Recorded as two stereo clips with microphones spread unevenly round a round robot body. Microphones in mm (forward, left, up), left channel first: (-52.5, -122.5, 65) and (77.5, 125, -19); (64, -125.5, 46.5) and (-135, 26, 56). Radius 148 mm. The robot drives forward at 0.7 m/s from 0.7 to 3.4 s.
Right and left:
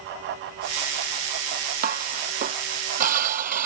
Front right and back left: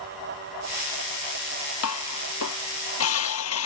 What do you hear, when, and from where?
1.8 s dishes clattering: straight ahead